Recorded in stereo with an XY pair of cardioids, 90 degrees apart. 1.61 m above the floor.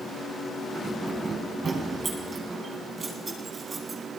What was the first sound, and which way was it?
Keys jangling, 40° right.